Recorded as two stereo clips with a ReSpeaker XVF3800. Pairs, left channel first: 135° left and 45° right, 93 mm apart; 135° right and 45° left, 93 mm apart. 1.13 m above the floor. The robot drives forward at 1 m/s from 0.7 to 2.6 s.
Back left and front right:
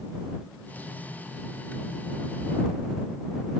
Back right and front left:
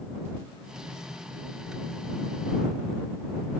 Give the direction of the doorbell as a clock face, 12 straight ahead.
No doorbell in this recording.